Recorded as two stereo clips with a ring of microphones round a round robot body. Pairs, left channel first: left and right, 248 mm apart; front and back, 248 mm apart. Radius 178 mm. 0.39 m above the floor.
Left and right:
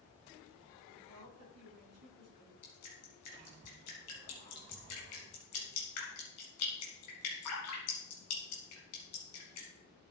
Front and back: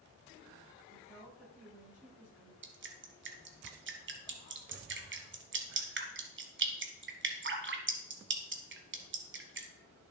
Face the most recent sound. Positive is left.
turn(degrees=135)